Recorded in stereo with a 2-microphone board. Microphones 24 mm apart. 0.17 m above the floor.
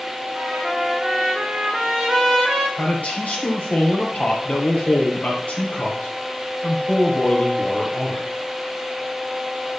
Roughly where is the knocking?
I don't hear knocking.